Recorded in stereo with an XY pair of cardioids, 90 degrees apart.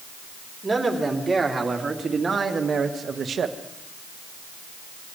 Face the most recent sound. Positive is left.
turn(degrees=-65)